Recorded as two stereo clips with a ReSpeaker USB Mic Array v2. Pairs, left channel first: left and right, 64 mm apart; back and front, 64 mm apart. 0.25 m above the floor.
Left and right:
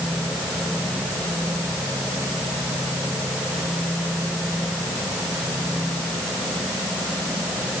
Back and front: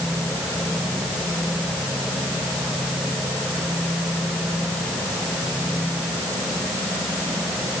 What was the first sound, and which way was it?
Only background noise.